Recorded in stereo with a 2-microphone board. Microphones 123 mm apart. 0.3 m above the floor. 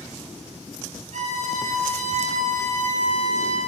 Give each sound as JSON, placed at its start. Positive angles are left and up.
{"t": 1.1, "sound": "a violin", "side_deg": -80, "distance_m": 1.1}